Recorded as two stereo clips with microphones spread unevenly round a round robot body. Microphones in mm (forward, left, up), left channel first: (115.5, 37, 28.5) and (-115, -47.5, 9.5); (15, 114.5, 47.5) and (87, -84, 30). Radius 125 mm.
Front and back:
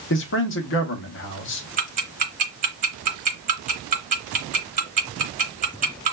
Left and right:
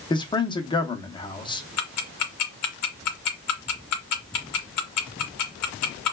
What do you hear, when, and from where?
0.1 s a man speaking: 40° left, 0.8 m
1.8 s ticking: 140° left, 0.8 m